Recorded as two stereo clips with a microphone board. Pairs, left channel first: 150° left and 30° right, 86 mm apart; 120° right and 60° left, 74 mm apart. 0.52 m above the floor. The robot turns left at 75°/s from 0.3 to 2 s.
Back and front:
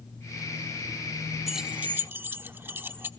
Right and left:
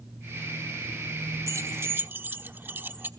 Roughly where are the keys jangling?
Ahead left.